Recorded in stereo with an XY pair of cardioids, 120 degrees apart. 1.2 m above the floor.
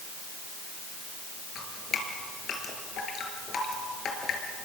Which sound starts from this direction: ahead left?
Dripping, at 1.6 s.